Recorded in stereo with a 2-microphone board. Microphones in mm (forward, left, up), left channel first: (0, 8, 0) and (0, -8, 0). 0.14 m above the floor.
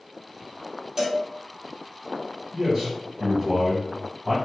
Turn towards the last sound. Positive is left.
turn(degrees=-50)  # may be behind; listen again after turning